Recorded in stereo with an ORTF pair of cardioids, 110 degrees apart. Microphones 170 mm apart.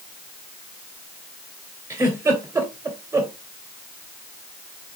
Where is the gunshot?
I don't hear a gunshot.